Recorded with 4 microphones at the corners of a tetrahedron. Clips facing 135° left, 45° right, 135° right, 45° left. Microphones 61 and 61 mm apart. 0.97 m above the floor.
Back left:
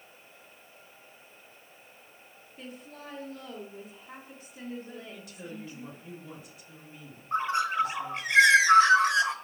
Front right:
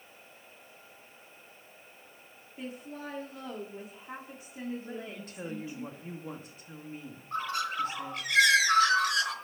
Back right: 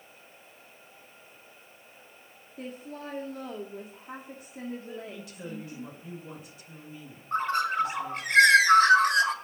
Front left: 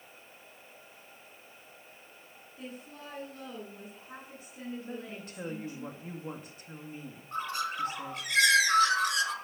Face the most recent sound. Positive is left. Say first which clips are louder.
# back left 5 dB, back right 8 dB
turn(degrees=-165)